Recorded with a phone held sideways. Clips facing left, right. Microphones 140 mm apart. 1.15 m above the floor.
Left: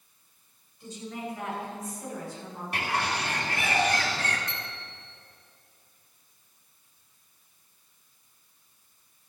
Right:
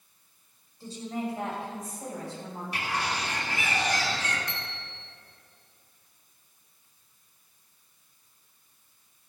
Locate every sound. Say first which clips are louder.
0.8 s a woman speaking: right 4 dB; 35° right (ahead or behind), 5 m; by 2.6 s 30° right (ahead or behind), 7 m
2.7 s a bird: left 2 dB; 55° left (ahead or behind), 2 m
4.5 s a bicycle bell: even; 40° left (ahead or behind), 3 m